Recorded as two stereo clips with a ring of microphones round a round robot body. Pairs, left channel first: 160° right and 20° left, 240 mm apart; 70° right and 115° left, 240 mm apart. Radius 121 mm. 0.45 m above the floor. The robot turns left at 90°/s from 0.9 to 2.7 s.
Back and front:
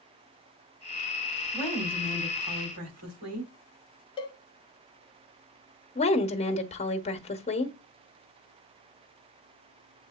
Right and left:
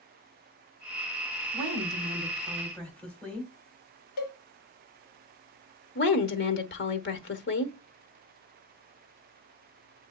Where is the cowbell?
85° right, 1.2 m.